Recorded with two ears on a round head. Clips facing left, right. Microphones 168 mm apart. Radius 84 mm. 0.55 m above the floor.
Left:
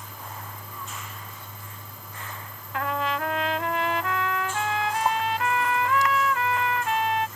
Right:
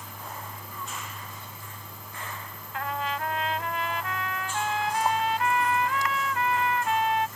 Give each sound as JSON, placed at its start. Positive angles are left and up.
{"t": 2.7, "sound": "a trumpet", "side_deg": 60}